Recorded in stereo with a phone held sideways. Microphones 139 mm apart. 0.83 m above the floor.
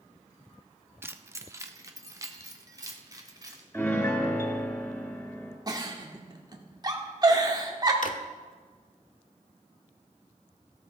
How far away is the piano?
About 2 m.